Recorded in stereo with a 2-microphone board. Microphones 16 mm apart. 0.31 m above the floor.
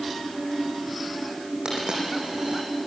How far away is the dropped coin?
About 6.5 m.